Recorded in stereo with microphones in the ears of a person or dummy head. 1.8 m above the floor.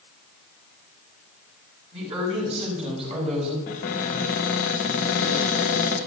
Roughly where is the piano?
No piano in this recording.